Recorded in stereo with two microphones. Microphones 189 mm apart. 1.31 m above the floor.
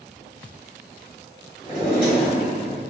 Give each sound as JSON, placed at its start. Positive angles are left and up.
{"t": 1.6, "sound": "a drawer", "side_deg": 45, "distance_m": 1.7}